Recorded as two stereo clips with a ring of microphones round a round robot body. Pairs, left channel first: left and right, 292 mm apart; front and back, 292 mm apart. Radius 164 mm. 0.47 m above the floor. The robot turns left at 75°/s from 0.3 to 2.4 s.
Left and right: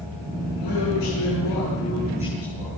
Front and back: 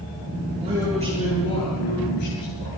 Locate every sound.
0.6 s a man speaking: 110° left, 9 m; by 2.7 s 25° right, 9 m